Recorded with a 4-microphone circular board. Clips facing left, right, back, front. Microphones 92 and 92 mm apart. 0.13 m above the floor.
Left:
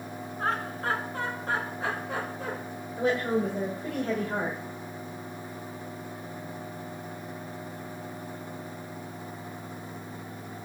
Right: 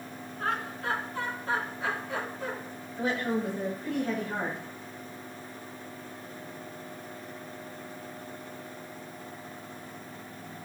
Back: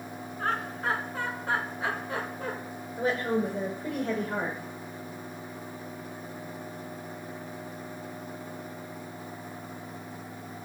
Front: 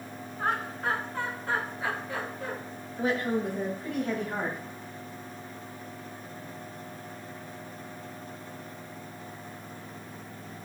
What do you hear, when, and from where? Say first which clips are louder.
0.4 s laughter: left 2 dB, front 1 dB; 65° left, 1.5 m; by 2.5 s 125° left, 3 m
3.0 s a woman speaking: left 3 dB, back 1 dB; 125° left, 3.5 m